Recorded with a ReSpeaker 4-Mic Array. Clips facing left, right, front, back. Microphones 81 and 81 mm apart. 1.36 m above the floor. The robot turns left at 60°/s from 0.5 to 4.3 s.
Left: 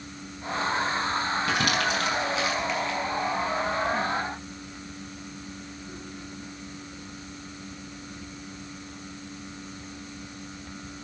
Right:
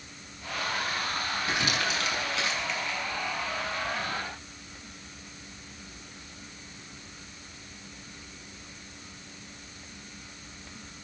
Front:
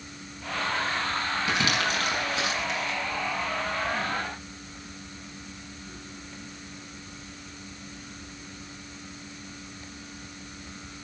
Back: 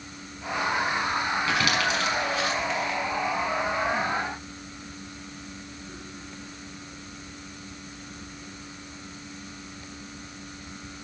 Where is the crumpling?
75° left, 5.5 m; by 3.0 s 15° right, 5.5 m.